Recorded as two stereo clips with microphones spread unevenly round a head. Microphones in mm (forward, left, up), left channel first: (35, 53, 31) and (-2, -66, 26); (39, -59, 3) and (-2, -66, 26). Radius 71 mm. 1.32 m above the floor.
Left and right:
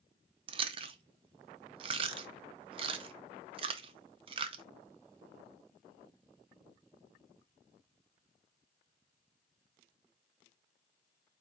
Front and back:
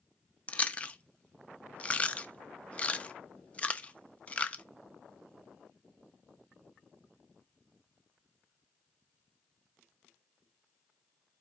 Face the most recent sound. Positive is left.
turn(degrees=-60)